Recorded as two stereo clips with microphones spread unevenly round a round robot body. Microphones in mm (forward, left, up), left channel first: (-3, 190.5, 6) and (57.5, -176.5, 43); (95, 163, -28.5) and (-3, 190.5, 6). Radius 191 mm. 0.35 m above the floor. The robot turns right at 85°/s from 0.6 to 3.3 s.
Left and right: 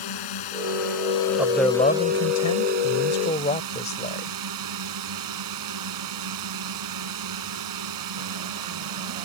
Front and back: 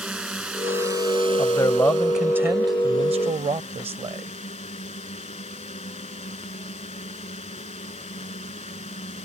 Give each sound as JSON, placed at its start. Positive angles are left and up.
{"t": 0.0, "sound": "a drone", "azimuth_deg": 85}
{"t": 1.4, "sound": "a man speaking", "azimuth_deg": -5}